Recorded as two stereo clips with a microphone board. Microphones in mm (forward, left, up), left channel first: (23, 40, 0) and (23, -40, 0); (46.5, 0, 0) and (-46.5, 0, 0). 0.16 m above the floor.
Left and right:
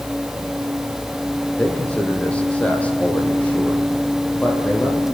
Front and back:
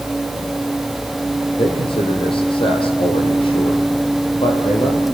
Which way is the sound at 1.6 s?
15° left.